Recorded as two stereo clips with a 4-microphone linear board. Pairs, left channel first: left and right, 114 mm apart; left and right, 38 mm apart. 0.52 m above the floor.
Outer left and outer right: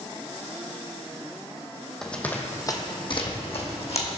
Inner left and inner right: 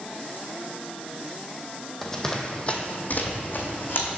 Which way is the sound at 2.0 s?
5° left (ahead or behind).